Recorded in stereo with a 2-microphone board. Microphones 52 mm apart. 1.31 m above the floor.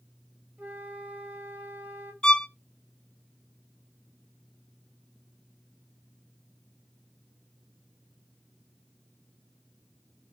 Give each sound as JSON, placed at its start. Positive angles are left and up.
{"t": 0.6, "sound": "a flute", "side_deg": -40, "distance_m": 2.5}
{"t": 2.2, "sound": "a violin", "side_deg": 15, "distance_m": 0.6}